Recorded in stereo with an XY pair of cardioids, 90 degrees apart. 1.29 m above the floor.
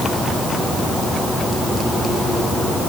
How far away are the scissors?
No scissors in this recording.